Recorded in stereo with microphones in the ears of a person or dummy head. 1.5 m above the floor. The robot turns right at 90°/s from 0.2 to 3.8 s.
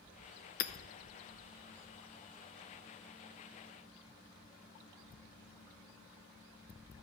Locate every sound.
0.6 s hammering: 50° left (ahead or behind), 0.7 m; by 0.7 s 55° left (ahead or behind), 0.7 m